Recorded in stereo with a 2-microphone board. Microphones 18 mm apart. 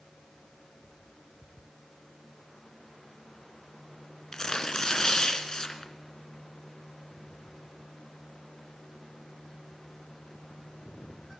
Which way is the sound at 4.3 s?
40° left (ahead or behind).